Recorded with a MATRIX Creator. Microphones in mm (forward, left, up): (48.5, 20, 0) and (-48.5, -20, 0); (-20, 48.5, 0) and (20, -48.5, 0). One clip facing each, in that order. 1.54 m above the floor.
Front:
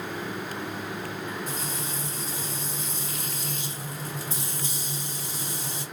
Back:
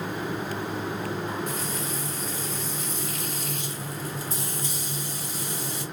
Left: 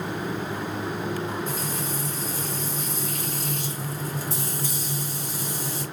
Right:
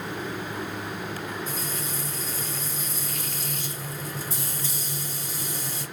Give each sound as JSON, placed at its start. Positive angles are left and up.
{"t": 1.5, "sound": "frying", "azimuth_deg": 85, "distance_m": 1.2}